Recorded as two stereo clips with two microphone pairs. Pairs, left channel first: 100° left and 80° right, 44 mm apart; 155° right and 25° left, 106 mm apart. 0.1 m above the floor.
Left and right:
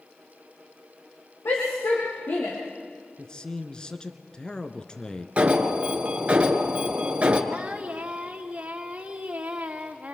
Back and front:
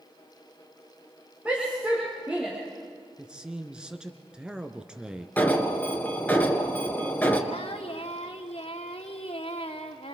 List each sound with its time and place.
1.4 s a shout: 105° left, 5 m
3.2 s a man speaking: 95° left, 1.1 m
5.4 s an alarm: 100° right, 1.7 m
7.5 s singing: 135° right, 3 m